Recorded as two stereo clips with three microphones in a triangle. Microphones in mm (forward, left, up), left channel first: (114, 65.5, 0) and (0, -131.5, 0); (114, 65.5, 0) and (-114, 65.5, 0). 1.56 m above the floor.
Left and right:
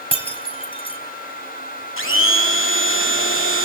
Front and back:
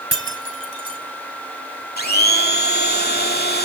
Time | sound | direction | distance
0.1 | breaking glass | 5° right | 4 m
2.0 | a blender | 40° left | 2 m